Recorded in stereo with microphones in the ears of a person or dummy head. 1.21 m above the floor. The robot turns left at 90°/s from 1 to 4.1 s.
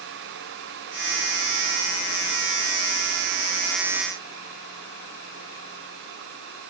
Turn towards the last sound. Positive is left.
No sound to turn to.